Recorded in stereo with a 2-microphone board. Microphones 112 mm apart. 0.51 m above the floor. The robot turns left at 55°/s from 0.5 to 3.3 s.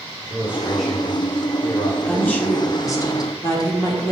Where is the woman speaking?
170° left, 1.4 m; by 4.1 s 105° left, 1.4 m.